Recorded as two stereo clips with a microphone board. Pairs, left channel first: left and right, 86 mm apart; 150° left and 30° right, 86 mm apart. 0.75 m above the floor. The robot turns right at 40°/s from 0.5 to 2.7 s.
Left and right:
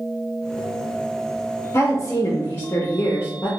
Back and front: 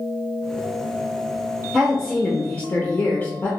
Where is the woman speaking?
70° left, 0.5 m; by 3.5 s 105° left, 0.5 m.